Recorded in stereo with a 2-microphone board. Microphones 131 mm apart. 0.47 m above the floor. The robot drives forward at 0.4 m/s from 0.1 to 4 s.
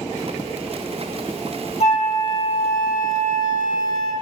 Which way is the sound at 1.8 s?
60° left (ahead or behind).